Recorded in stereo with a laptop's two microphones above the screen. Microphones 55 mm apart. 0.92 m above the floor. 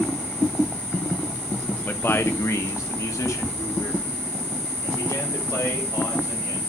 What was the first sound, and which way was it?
A man speaking, 35° left (ahead or behind).